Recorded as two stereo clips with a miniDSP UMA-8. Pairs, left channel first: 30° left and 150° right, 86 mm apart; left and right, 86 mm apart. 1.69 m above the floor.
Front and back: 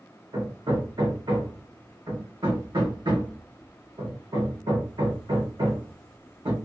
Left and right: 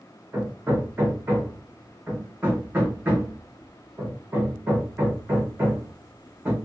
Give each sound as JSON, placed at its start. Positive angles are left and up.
{"t": 0.3, "sound": "hammering", "azimuth_deg": -150, "distance_m": 1.1}